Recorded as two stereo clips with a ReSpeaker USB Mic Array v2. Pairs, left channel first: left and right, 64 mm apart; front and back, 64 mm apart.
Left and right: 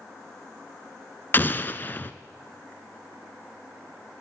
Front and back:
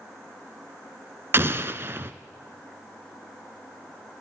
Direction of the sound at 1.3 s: 140° left.